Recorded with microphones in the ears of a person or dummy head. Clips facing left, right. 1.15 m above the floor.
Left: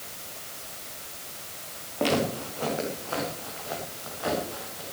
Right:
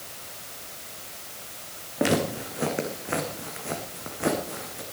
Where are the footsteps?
20° right (ahead or behind), 3 m; by 4.8 s 50° right (ahead or behind), 3 m.